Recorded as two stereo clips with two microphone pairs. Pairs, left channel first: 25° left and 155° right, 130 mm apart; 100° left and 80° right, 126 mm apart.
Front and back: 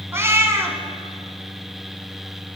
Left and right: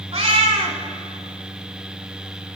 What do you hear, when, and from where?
0.1 s a cat meowing: 95° right, 0.7 m